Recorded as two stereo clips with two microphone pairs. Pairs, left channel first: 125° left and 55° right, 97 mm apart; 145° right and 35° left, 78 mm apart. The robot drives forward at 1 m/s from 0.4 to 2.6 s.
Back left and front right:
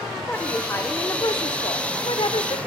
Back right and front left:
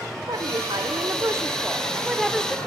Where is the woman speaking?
55° left, 1.7 m; by 2.6 s 130° left, 1.8 m.